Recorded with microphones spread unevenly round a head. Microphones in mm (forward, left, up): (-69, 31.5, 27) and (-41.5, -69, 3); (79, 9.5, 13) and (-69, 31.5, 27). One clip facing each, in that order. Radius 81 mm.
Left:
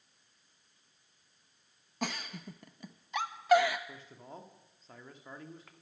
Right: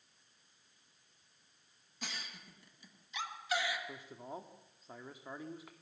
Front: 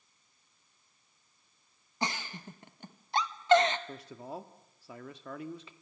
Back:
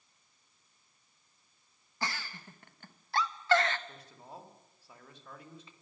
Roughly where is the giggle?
Ahead left.